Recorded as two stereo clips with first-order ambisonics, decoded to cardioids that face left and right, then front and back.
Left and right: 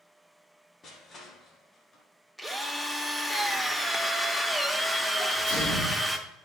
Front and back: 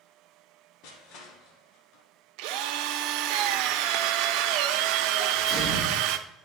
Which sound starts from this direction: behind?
A drill, at 2.4 s.